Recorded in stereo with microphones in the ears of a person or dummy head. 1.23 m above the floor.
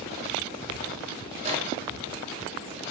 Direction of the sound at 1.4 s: 30° right (ahead or behind).